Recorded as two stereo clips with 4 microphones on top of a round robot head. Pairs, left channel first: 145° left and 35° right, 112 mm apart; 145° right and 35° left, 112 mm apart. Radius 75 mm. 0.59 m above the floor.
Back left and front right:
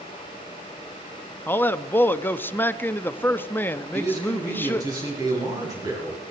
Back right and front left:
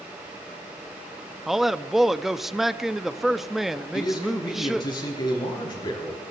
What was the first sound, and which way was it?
A man speaking, 120° left.